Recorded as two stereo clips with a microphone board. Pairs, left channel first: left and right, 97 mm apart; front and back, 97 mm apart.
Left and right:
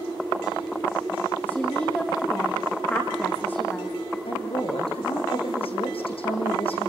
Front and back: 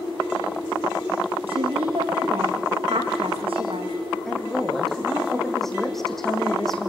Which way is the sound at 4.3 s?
85° left.